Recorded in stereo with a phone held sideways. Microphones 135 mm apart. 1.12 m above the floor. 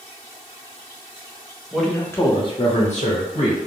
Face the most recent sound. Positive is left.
turn(degrees=65)  # may be behind; listen again after turning